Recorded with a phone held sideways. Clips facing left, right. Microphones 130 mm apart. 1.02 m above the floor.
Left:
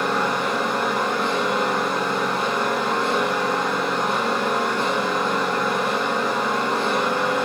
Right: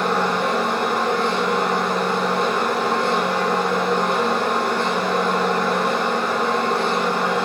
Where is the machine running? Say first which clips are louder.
Right 2 dB; 60° right (ahead or behind), 6 m.